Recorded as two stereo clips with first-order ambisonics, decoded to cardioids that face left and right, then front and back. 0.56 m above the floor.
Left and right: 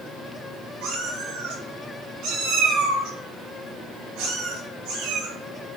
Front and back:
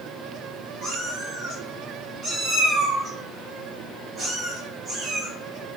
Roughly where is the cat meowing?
Right.